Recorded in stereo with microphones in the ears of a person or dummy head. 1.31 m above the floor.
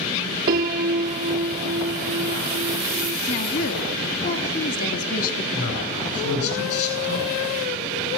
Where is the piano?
25° right (ahead or behind), 0.9 m.